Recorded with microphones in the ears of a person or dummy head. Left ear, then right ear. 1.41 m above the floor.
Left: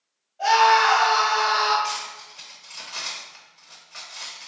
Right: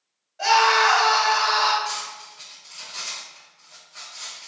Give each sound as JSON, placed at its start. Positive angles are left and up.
{"t": 0.4, "sound": "a scream", "side_deg": -60, "distance_m": 1.7}
{"t": 1.8, "sound": "cutlery clinking", "side_deg": 45, "distance_m": 0.7}